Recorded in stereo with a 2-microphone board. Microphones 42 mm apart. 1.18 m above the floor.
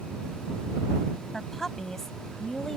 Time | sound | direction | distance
1.3 | a woman speaking | 10° left (ahead or behind) | ?